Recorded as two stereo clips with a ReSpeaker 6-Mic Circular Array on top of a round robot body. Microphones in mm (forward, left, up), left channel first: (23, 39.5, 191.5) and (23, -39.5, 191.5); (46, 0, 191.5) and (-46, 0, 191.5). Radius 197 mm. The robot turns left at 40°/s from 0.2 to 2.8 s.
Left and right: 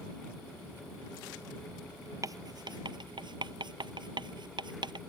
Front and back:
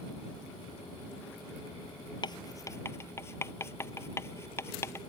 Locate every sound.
2.2 s writing: 40° right; by 5.0 s 65° right